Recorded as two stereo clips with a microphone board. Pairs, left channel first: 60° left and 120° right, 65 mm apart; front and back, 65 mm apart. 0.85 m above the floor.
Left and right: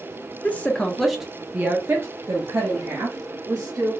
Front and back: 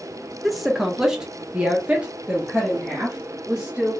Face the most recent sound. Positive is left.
turn(degrees=-110)